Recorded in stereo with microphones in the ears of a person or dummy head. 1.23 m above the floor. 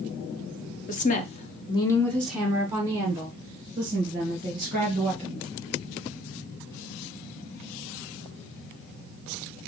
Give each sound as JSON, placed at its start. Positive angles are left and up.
{"t": 0.9, "sound": "a woman speaking", "side_deg": 40, "distance_m": 0.7}